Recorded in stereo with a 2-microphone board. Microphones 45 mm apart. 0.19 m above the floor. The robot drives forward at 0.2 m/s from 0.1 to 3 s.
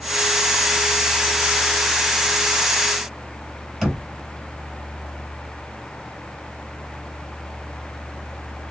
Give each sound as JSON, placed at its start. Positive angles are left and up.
{"t": 3.8, "sound": "knocking", "side_deg": 5, "distance_m": 1.8}